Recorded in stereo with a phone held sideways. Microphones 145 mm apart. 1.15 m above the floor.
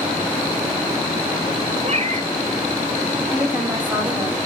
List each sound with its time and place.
1.8 s a cat meowing: 50° right (ahead or behind), 2.5 m
3.3 s a woman speaking: 10° right (ahead or behind), 5 m